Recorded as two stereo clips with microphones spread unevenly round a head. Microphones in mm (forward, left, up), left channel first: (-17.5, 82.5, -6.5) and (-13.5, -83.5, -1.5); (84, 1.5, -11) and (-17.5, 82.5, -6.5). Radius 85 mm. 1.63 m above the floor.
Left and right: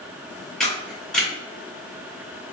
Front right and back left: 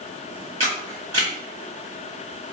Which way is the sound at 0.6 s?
175° left.